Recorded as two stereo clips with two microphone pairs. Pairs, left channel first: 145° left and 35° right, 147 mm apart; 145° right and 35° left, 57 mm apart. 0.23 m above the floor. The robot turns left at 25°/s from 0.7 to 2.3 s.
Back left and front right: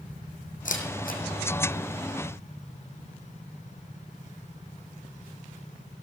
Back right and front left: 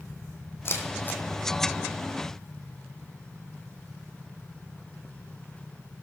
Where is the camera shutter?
170° left, 1.6 m; by 1.2 s 160° left, 1.6 m.